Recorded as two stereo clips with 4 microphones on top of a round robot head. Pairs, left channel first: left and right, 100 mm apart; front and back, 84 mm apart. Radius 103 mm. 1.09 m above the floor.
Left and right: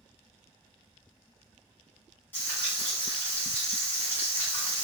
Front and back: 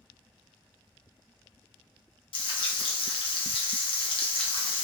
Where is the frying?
15° left, 0.7 m.